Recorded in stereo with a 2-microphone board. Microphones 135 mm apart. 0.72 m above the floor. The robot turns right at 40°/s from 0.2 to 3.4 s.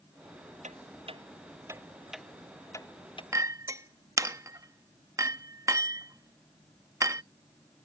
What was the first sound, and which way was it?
Ticking, 65° right (ahead or behind).